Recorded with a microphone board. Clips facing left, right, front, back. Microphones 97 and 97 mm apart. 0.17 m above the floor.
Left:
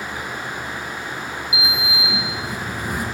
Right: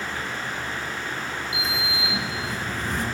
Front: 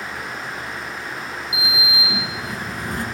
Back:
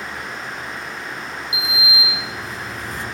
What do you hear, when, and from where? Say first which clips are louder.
1.5 s a sliding door: left 3 dB, back 1 dB; 15° left, 0.7 m